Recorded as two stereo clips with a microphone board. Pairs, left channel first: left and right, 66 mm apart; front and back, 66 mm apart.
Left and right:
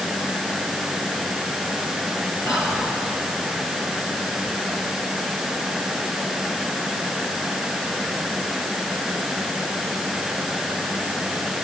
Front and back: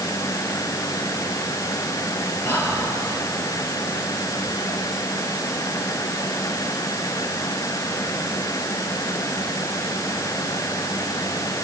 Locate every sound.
2.5 s whispering: 55° left, 6.5 m